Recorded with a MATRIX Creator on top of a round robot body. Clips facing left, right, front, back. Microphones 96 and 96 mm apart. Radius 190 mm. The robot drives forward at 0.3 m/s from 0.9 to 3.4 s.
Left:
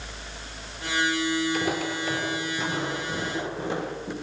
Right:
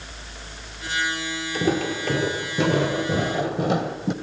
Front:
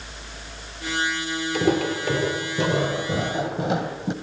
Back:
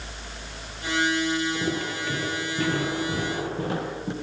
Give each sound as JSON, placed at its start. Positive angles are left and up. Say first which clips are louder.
{"t": 1.5, "sound": "footsteps", "louder": "right 4 dB, front 6 dB", "azimuth_deg": -35, "distance_m": 1.1}